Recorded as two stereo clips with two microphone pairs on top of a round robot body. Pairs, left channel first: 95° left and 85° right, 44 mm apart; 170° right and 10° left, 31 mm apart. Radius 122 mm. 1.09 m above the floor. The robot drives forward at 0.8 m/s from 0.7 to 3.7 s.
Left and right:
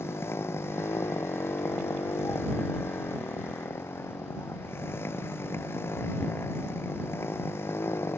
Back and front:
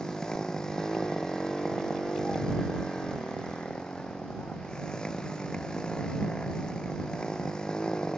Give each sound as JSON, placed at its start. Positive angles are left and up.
{"t": 0.0, "sound": "a motorcycle", "azimuth_deg": 120}